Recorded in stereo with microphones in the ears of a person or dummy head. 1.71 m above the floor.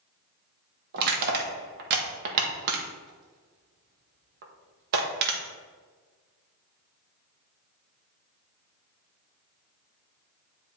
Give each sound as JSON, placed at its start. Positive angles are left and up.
{"t": 0.9, "sound": "crushing", "side_deg": -55, "distance_m": 1.4}